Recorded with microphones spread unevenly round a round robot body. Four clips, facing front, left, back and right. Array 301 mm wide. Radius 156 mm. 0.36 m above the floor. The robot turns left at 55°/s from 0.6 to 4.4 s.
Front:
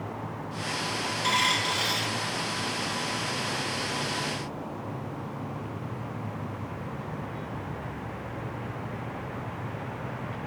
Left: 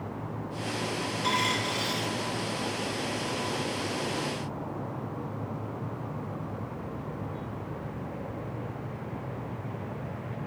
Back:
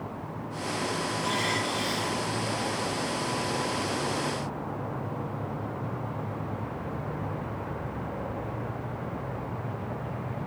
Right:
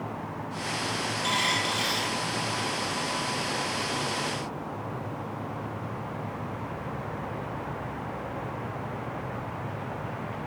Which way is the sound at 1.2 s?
45° left.